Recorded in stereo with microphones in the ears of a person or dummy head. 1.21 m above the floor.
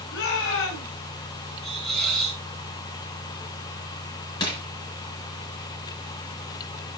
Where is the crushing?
25° left (ahead or behind), 3.5 m.